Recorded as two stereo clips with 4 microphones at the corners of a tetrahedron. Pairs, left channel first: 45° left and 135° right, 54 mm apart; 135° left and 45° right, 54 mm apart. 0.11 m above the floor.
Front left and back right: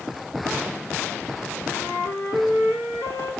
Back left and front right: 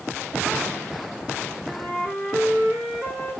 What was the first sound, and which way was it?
A flute, 25° left.